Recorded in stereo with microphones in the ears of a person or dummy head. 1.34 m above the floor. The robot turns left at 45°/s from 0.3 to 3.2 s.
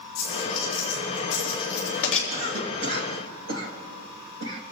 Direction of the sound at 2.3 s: 40° right (ahead or behind).